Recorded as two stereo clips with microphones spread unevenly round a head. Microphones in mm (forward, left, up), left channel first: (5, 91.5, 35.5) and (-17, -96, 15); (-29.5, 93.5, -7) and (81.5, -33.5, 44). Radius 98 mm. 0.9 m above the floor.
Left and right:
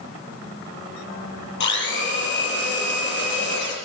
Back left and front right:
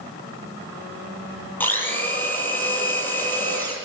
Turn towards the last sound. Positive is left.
turn(degrees=50)